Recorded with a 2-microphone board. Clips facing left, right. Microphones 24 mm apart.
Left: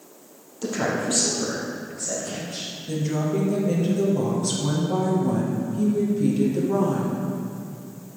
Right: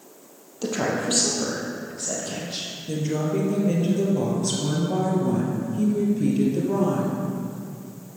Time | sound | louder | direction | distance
0.6 | a woman speaking | even | 20° right (ahead or behind) | 3 m
2.9 | a woman speaking | even | 10° right (ahead or behind) | 3.5 m